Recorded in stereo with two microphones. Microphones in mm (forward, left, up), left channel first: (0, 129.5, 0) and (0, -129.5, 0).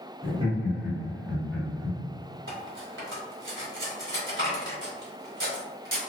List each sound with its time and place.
0.2 s laughter: 20° right (ahead or behind), 1.2 m; by 2.0 s 10° right (ahead or behind), 1.8 m
2.5 s cutlery clinking: 50° right (ahead or behind), 1.2 m